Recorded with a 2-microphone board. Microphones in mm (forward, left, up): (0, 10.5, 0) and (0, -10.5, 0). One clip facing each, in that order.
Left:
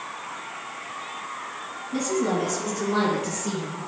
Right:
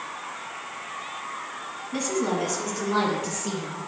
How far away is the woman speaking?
About 1.5 m.